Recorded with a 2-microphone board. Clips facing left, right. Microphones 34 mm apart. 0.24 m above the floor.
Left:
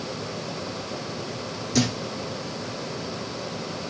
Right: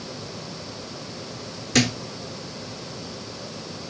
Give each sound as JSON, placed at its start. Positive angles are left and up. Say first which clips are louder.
{"t": 1.7, "sound": "a thud", "louder": "right 3 dB", "side_deg": -55, "distance_m": 1.9}